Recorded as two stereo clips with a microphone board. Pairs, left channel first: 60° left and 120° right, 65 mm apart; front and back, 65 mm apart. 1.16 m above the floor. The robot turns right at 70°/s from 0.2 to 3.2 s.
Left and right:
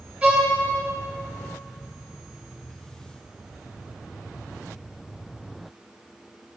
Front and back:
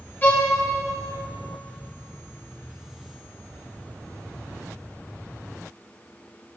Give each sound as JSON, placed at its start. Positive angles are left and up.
{"t": 0.2, "sound": "a violin", "azimuth_deg": -50, "distance_m": 1.2}